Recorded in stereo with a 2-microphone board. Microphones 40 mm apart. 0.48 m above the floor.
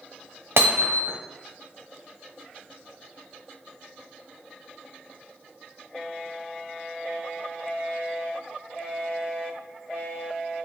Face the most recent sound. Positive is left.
turn(degrees=-75)  # may be behind; listen again after turning